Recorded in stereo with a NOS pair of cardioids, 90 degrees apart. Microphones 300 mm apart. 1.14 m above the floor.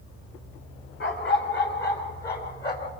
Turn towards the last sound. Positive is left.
turn(degrees=30)